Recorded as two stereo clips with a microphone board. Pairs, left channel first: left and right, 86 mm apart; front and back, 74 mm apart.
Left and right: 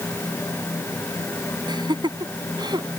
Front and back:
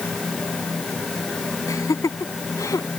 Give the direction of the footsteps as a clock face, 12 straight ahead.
I don't hear footsteps.